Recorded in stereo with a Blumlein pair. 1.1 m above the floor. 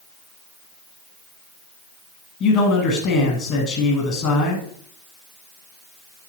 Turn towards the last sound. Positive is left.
turn(degrees=30)